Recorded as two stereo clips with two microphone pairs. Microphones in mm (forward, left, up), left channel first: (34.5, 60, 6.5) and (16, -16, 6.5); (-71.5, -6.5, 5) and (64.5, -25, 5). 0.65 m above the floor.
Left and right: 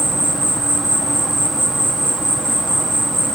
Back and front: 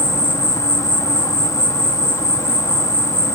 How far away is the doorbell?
No doorbell in this recording.